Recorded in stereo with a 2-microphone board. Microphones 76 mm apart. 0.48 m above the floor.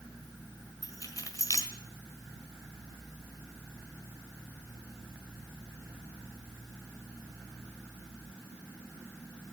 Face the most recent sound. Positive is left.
turn(degrees=45)  # may be behind; listen again after turning